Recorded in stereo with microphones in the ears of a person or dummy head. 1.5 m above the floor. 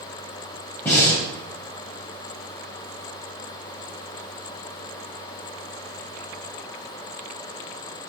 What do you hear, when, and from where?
0.8 s breathing: 10° left (ahead or behind), 0.5 m